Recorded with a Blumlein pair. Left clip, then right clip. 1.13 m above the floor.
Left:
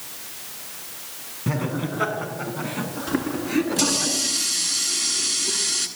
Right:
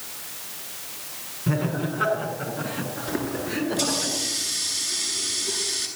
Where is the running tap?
45° left, 9 m.